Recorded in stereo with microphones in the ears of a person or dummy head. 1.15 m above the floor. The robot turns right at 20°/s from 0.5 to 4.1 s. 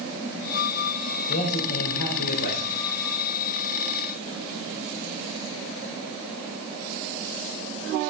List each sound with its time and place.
1.3 s a man speaking: 60° left, 5 m; by 2.8 s 90° left, 5 m